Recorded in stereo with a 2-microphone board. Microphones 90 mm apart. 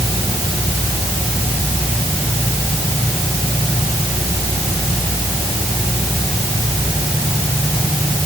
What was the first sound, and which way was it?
Only background noise.